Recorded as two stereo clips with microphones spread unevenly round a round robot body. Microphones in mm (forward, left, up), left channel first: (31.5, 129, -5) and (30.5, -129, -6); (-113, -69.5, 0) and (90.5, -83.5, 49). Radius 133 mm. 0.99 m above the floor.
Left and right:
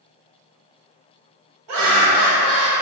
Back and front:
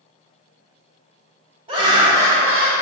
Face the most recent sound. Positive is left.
turn(degrees=-85)